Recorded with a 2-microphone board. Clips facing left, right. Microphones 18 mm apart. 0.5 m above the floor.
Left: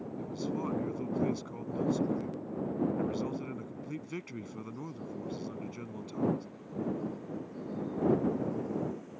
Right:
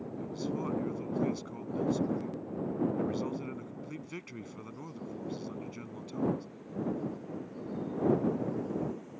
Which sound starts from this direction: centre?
A man speaking, at 0.2 s.